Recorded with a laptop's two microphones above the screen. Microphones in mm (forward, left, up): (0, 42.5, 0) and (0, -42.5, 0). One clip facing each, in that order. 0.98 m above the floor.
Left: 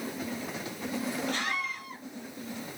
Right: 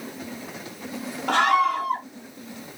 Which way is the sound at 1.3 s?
75° right (ahead or behind).